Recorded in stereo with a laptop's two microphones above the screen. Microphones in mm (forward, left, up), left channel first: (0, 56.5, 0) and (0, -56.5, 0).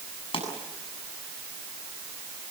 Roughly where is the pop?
Left.